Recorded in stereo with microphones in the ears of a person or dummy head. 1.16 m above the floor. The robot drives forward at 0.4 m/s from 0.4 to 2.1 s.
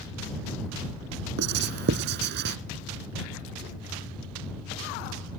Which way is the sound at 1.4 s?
65° right (ahead or behind).